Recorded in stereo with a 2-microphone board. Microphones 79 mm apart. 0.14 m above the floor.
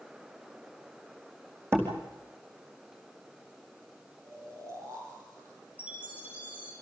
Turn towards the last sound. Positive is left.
turn(degrees=-25)  # may be behind; listen again after turning